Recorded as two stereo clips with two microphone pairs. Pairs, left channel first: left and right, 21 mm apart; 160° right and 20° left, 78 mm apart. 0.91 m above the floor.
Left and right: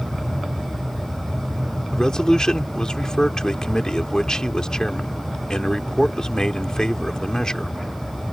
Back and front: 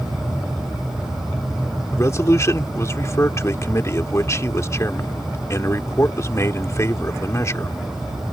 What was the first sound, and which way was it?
A man speaking, 150° left.